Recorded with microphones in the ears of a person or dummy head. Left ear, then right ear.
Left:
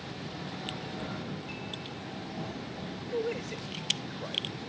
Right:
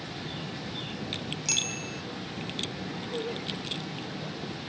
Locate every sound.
1.4 s a bicycle bell: 85° right
3.1 s a man speaking: 35° left (ahead or behind)